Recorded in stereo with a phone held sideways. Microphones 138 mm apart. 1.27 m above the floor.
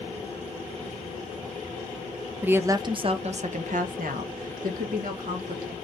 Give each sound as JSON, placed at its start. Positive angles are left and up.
{"t": 2.4, "sound": "a woman speaking", "side_deg": -10, "distance_m": 0.7}